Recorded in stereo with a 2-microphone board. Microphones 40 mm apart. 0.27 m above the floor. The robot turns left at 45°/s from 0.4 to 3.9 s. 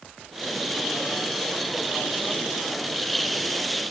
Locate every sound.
Only background noise.